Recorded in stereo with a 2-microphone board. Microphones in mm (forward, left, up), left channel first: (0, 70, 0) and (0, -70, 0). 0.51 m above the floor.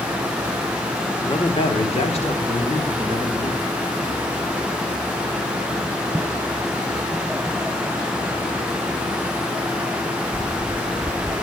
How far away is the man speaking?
About 0.9 m.